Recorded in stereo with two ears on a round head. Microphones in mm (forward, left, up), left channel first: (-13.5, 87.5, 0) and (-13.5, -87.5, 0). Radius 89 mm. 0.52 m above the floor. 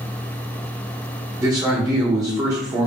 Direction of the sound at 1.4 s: 20° right (ahead or behind).